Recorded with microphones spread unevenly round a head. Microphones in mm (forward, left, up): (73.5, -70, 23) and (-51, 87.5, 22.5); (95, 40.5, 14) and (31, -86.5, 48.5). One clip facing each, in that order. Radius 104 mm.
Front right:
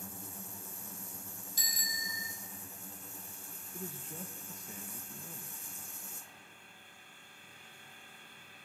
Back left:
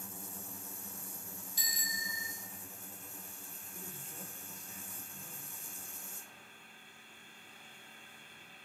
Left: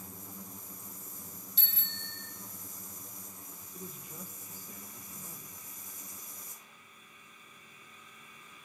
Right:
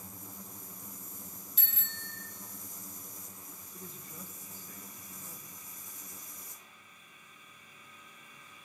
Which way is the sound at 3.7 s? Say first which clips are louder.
Front right 6 dB, left 3 dB; 20° right.